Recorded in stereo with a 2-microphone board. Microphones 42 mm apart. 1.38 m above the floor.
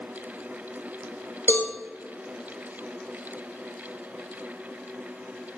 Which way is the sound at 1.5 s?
45° left (ahead or behind).